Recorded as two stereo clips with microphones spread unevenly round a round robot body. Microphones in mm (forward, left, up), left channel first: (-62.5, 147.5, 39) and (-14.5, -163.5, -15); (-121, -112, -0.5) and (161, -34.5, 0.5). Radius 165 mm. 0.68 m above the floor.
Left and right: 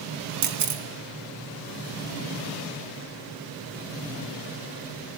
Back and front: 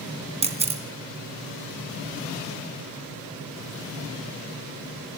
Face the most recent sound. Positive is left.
turn(degrees=-55)